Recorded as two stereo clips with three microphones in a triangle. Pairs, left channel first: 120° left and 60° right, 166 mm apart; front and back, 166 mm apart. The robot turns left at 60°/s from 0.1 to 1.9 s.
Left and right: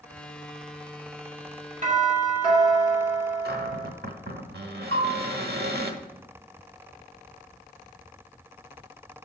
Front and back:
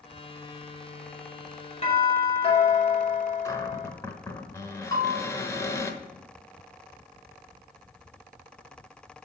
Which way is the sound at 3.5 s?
75° right.